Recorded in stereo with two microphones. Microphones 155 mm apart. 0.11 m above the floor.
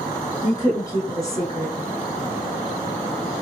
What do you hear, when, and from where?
0.4 s a woman speaking: 20° left (ahead or behind), 1.1 m